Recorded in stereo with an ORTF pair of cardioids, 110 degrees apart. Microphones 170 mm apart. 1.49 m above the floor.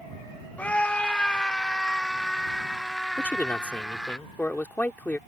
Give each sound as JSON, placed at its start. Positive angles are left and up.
{"t": 0.6, "sound": "a scream", "azimuth_deg": 10}
{"t": 3.2, "sound": "a man speaking", "azimuth_deg": 10}